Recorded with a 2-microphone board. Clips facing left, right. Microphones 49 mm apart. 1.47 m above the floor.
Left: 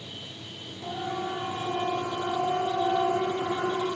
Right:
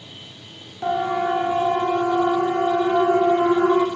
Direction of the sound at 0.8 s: 65° right (ahead or behind).